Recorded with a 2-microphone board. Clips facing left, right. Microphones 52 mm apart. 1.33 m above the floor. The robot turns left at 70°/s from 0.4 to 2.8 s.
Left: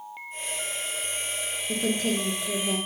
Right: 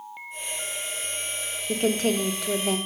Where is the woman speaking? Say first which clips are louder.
Right 4 dB; 40° right, 0.9 m; by 2.8 s 115° right, 0.9 m.